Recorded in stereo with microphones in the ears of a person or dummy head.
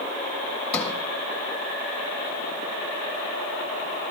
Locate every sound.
0.7 s a sliding door: 15° left (ahead or behind), 0.8 m